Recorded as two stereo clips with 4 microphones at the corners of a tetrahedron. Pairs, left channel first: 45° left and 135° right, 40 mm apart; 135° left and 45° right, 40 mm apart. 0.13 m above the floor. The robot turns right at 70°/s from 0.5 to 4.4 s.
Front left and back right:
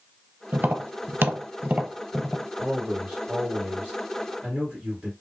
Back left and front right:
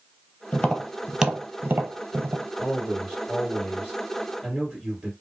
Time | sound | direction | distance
0.5 | tapping | 165° right | 0.6 m
2.6 | a man speaking | 150° left | 2 m